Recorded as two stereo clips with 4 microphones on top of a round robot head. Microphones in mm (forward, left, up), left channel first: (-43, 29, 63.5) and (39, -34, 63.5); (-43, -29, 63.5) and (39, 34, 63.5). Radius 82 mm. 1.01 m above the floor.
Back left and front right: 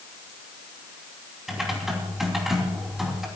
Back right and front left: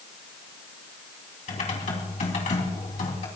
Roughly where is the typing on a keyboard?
Behind right.